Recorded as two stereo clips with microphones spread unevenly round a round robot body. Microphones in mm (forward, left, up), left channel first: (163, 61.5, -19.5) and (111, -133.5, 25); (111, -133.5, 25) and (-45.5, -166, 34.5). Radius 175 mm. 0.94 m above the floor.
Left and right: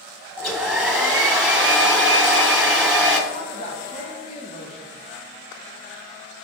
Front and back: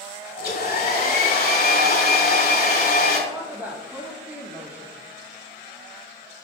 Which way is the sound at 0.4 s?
15° right.